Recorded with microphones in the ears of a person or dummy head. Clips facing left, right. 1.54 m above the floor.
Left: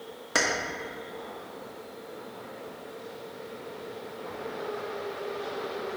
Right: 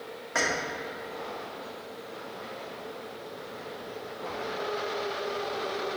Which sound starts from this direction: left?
Keys jangling, at 0.3 s.